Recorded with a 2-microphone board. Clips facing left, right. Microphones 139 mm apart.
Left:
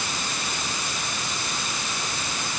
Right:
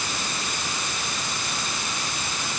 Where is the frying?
No frying in this recording.